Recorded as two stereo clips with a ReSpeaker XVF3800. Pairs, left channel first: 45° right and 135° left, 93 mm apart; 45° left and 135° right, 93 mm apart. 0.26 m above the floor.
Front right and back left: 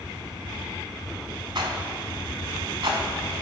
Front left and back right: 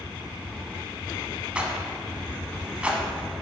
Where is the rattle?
150° left, 0.7 m.